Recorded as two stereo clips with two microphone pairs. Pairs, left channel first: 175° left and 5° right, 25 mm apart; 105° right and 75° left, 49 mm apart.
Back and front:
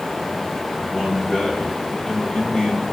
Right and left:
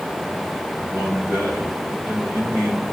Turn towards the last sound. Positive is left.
turn(degrees=120)